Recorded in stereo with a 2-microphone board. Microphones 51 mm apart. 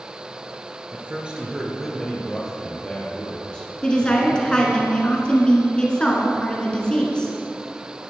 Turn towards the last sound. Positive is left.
turn(degrees=20)  # may be behind; listen again after turning